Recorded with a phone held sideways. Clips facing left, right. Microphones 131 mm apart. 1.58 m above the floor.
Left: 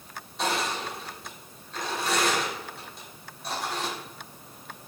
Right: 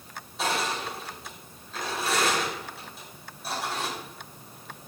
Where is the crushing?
5° right (ahead or behind), 5 m.